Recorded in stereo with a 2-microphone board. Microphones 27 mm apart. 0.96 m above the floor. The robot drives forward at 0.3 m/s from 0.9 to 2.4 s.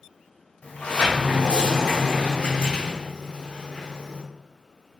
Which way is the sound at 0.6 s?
65° left (ahead or behind).